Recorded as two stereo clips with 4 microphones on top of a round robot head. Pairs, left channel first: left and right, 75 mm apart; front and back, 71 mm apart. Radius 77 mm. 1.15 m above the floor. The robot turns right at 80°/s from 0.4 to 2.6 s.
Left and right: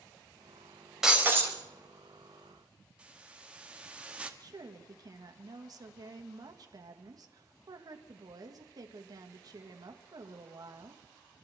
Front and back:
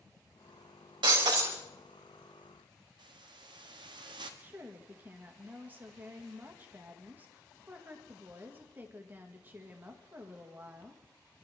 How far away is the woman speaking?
About 2.0 m.